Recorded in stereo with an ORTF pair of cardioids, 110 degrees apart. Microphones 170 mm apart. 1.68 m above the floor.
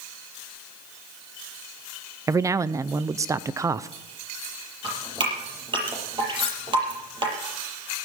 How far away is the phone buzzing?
I don't hear a phone buzzing.